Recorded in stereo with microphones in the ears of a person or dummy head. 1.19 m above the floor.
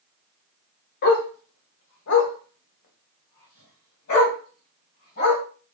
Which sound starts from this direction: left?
A dog barking, at 1.0 s.